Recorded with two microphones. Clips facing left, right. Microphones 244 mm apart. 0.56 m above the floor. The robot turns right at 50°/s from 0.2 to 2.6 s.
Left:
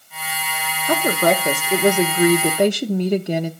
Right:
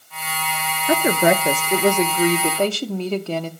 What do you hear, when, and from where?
0.9 s a woman speaking: 10° right (ahead or behind), 0.6 m; by 3.5 s 15° left (ahead or behind), 0.6 m